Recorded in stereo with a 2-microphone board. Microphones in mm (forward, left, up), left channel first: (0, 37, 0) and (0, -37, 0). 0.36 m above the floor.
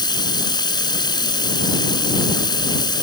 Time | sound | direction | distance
0.0 | running water | 75° left (ahead or behind) | ?